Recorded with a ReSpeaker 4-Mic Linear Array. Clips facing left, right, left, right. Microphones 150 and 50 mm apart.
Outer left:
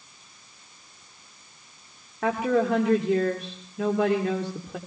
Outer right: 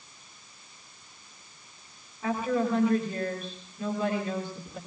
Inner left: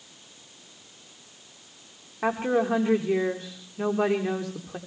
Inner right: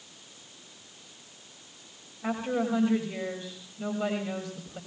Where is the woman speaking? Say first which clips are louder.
Outer left 4 dB, inner left 5 dB; 75° left (ahead or behind), 7 m.